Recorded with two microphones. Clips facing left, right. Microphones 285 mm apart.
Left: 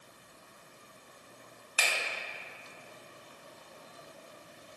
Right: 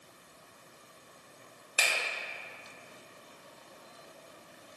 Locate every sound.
1.8 s a finger snap: 50° right (ahead or behind), 0.6 m